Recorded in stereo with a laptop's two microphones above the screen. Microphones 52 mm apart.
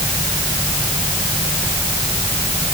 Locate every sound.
Only background noise.